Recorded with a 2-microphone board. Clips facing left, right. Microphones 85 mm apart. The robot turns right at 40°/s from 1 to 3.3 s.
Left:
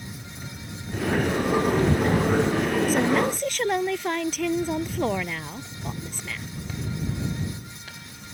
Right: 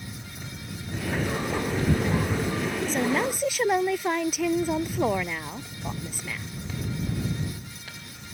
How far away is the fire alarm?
I don't hear a fire alarm.